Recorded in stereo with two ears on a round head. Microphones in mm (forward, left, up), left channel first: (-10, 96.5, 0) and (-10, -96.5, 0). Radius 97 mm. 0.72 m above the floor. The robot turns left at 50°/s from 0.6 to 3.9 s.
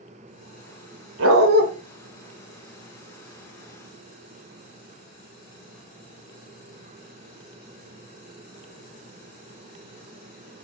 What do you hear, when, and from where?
1.2 s a dog barking: 65° right (ahead or behind), 1.2 m; by 1.6 s 50° right (ahead or behind), 1.2 m